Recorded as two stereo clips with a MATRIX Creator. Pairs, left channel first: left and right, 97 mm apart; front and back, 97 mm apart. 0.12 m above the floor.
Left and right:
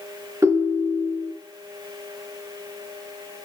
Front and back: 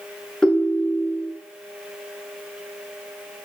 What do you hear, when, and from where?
0.4 s a ringtone: 75° right, 1.1 m